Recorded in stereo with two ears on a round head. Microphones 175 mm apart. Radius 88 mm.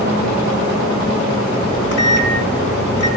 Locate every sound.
1.6 s a microwave: 65° left (ahead or behind), 4.5 m